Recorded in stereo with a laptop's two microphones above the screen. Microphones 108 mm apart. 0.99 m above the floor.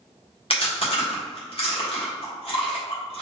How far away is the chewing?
About 1.3 m.